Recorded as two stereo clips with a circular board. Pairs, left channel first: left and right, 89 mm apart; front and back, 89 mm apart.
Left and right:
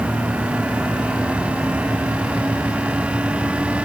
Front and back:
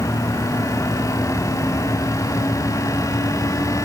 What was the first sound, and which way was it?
Only background noise.